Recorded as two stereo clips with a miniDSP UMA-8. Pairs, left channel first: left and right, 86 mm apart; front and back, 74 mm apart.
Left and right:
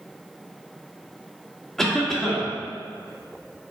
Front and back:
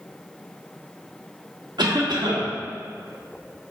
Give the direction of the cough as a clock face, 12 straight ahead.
6 o'clock.